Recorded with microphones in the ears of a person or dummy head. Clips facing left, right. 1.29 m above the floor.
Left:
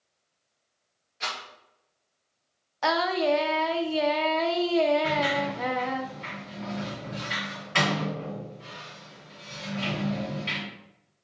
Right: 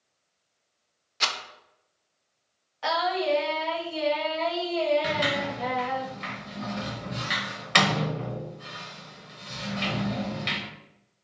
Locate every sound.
1.2 s a rattle: 75° right (ahead or behind), 0.7 m
2.8 s singing: 60° left (ahead or behind), 0.5 m
5.0 s a sliding door: 65° right (ahead or behind), 1.0 m